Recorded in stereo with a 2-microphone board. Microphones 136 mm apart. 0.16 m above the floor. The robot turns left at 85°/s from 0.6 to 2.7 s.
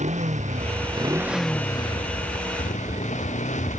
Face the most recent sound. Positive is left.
turn(degrees=70)